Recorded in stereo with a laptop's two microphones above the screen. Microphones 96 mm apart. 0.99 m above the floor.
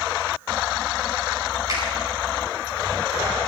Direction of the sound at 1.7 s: 35° right (ahead or behind).